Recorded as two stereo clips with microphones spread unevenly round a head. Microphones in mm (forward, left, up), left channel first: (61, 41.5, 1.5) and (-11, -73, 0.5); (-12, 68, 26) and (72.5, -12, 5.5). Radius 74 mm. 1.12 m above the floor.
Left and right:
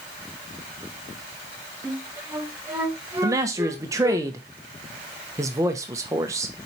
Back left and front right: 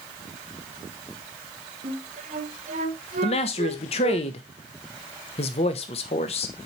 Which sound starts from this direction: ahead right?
A flute, at 1.8 s.